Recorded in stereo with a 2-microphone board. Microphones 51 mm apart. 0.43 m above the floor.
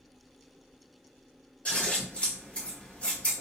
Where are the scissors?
25° left (ahead or behind), 1.9 m.